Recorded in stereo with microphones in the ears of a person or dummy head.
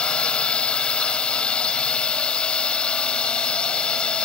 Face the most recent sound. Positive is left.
turn(degrees=5)  # may be behind; listen again after turning